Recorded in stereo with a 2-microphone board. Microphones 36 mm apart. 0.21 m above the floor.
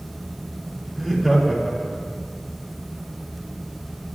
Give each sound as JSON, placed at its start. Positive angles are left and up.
{"t": 0.9, "sound": "laughter", "side_deg": 0, "distance_m": 7.0}